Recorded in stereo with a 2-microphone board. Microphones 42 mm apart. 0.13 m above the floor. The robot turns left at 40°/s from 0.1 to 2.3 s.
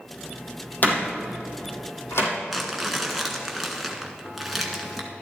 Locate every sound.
0.8 s a door slam: 45° left (ahead or behind), 3.5 m; by 2.3 s 70° left (ahead or behind), 3.5 m
2.5 s crumpling: 5° right (ahead or behind), 1.6 m